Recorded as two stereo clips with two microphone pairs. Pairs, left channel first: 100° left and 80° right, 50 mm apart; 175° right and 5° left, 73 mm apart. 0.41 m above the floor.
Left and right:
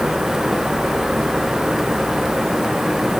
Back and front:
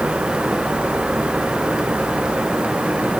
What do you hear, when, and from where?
Only background noise.